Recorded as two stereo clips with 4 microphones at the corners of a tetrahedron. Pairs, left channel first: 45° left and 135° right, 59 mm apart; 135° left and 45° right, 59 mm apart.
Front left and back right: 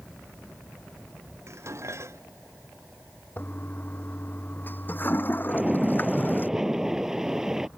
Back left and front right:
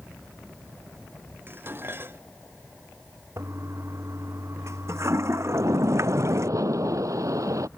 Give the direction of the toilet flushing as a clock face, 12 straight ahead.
12 o'clock.